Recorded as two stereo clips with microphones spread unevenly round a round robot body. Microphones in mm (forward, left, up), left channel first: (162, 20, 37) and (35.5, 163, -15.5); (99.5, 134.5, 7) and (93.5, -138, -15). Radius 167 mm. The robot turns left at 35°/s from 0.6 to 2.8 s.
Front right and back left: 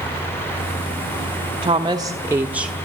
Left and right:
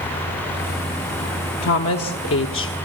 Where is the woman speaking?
100° left, 1.2 m; by 2.8 s 60° left, 1.2 m.